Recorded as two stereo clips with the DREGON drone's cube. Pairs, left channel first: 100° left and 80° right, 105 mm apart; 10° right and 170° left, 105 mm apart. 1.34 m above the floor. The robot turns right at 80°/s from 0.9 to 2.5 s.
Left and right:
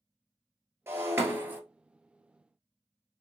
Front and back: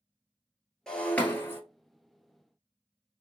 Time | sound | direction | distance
0.9 | breaking glass | 85° right | 1.4 m